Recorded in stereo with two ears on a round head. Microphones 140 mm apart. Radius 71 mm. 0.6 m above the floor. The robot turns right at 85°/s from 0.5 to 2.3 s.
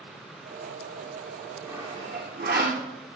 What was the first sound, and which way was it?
Sawing, 5° right (ahead or behind).